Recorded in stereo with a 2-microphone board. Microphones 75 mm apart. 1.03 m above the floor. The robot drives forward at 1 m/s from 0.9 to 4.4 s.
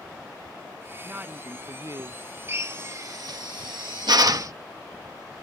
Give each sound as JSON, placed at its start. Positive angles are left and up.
{"t": 1.0, "sound": "a woman speaking", "side_deg": -20}
{"t": 2.5, "sound": "a drill", "side_deg": -35}